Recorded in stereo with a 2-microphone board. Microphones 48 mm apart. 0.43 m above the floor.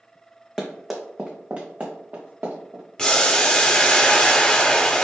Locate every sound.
0.6 s running footsteps: 10° left (ahead or behind), 1.8 m; by 2.8 s 45° right (ahead or behind), 3.5 m
3.0 s boiling: 20° left (ahead or behind), 1.2 m